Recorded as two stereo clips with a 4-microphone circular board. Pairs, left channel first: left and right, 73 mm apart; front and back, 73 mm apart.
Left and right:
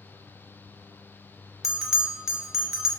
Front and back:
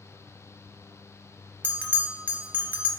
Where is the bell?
165° right, 0.6 m.